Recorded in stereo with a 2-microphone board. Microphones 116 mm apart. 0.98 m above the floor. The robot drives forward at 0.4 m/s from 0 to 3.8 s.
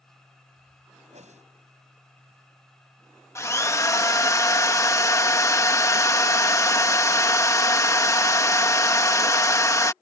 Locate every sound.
1.1 s a whoosh: 80° right
3.4 s a drill: 25° left (ahead or behind)